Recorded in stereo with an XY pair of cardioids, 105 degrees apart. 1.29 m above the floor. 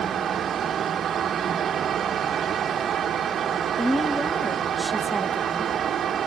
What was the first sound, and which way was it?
A fan, 55° right.